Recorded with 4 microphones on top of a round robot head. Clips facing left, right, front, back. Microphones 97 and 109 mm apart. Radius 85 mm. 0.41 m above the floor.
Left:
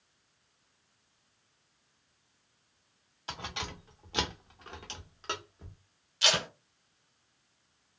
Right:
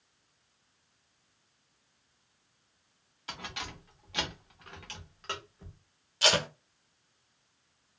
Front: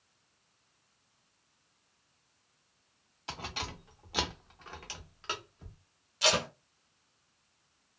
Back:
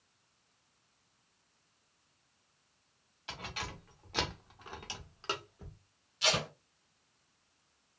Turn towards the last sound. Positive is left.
turn(degrees=-45)